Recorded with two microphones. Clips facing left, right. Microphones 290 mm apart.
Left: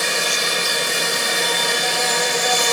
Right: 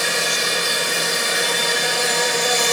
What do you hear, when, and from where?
0.0 s an insect: 20° right (ahead or behind), 7.5 m